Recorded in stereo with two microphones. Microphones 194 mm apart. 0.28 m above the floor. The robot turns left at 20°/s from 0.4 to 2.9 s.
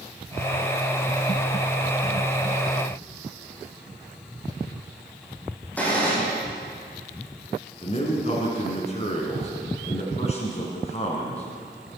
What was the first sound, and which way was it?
A gunshot, 10° left (ahead or behind).